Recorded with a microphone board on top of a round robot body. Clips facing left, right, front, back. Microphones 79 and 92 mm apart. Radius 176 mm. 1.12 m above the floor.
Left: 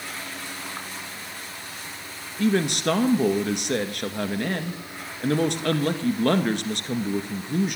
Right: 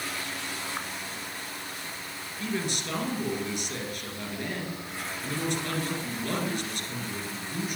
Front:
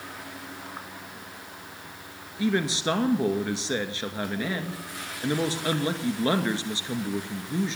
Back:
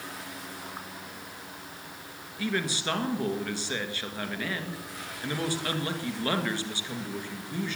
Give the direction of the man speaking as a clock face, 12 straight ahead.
10 o'clock.